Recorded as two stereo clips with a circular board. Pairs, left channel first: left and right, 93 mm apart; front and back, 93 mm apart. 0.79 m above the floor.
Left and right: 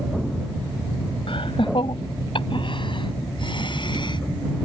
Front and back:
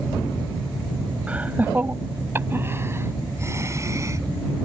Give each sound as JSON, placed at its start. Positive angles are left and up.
{"t": 1.3, "sound": "laughter", "azimuth_deg": 105}